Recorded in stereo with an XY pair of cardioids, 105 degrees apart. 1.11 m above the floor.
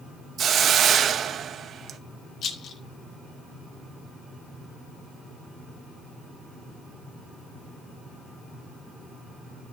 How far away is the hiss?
About 0.8 m.